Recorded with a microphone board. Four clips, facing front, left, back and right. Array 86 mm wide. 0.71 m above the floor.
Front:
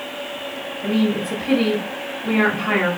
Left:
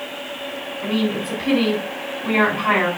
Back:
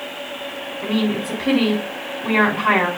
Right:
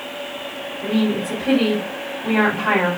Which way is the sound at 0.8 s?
170° left.